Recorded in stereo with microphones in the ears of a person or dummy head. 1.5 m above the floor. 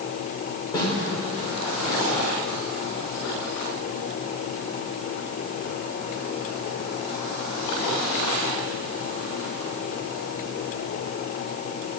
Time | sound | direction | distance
0.7 | a snare drum | 25° left (ahead or behind) | 1.9 m